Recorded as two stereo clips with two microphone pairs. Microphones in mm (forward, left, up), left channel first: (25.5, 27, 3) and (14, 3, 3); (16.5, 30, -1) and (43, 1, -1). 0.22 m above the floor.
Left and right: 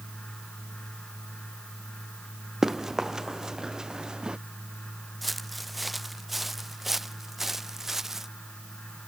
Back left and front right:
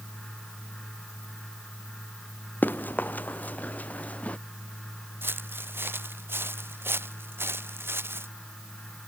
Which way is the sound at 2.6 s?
170° left.